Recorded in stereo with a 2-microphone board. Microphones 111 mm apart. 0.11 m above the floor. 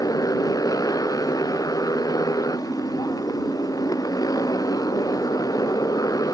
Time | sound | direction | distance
0.0 | a motorcycle | 35° left (ahead or behind) | ?